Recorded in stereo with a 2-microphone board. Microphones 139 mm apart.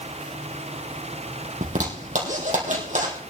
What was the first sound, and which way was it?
A zipper, 65° right (ahead or behind).